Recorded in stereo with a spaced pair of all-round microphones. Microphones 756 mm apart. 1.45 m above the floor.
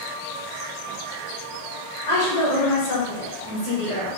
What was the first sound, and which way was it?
A woman speaking, 70° left (ahead or behind).